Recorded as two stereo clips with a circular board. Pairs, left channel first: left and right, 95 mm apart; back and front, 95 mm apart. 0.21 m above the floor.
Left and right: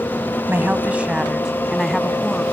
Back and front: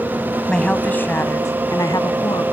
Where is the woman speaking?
110° right, 1.5 m; by 2.4 s 170° left, 2 m.